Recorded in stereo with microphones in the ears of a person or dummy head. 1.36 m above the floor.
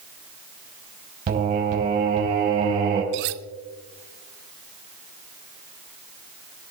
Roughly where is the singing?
Right.